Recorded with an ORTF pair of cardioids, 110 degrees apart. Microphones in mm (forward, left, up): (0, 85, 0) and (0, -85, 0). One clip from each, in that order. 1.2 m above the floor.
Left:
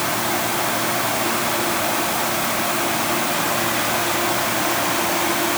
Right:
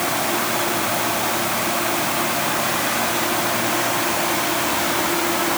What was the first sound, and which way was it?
Only background noise.